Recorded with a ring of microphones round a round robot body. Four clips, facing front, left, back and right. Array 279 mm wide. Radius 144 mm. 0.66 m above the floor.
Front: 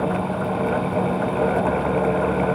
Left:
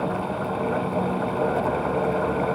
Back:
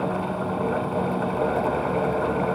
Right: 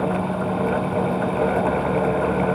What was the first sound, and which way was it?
Only background noise.